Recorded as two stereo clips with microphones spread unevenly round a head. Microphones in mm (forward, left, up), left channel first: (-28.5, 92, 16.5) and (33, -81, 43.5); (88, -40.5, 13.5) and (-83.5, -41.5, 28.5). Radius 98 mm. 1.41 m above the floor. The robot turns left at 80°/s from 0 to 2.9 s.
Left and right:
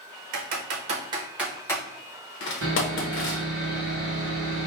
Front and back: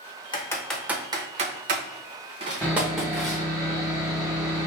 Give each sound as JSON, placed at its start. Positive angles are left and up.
{"t": 0.3, "sound": "typing on a keyboard", "azimuth_deg": -60, "distance_m": 0.7}
{"t": 2.6, "sound": "sawing", "azimuth_deg": -80, "distance_m": 1.5}